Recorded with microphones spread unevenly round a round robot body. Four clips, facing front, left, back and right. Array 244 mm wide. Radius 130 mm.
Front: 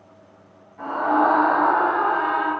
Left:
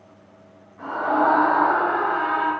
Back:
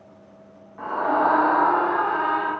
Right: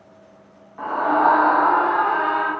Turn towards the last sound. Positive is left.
turn(degrees=-125)